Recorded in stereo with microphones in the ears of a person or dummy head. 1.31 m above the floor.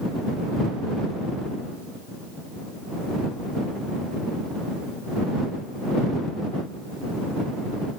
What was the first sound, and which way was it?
Only background noise.